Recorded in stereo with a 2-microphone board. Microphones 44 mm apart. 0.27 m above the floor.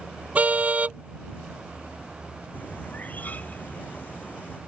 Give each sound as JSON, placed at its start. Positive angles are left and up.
{"t": 0.3, "sound": "a car horn", "side_deg": -30}
{"t": 2.5, "sound": "a bird", "side_deg": 35}